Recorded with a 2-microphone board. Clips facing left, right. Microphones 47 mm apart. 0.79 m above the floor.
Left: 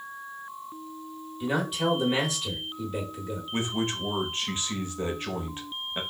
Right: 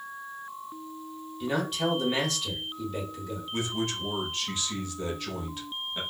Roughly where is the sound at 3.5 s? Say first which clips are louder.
Left 2 dB; left.